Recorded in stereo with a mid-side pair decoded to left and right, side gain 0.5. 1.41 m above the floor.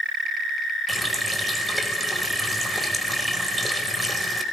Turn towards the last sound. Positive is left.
turn(degrees=0)